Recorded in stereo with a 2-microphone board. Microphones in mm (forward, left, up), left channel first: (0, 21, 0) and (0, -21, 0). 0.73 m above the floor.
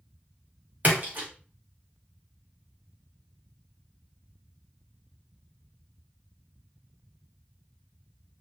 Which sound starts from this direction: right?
A splash, at 0.8 s.